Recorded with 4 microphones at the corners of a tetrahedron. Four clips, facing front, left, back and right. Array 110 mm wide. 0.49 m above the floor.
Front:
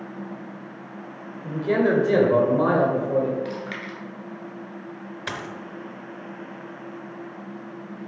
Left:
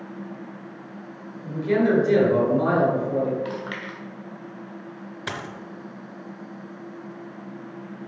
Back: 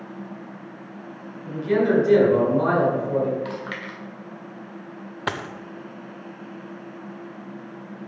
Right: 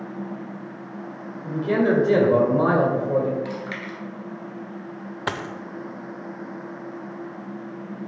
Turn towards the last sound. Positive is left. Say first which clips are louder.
# right 5 dB, back 5 dB
turn(degrees=-135)